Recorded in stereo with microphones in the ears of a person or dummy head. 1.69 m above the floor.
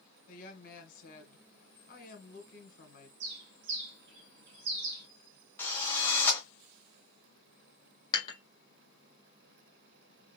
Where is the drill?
5° left (ahead or behind), 0.7 m.